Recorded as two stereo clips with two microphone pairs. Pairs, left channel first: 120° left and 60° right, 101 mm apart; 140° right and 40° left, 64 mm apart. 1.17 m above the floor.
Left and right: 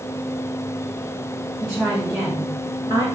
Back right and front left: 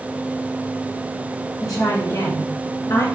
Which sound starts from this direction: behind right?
A woman speaking, at 1.6 s.